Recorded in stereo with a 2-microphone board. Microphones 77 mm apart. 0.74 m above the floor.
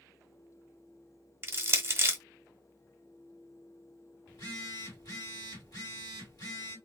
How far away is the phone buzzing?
About 1.7 m.